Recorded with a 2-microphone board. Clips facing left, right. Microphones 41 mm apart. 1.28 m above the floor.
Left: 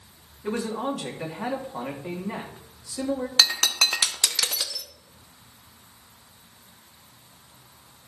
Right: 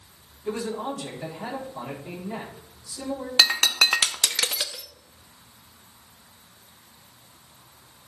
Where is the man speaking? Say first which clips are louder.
Left 1 dB; 75° left (ahead or behind), 3 m.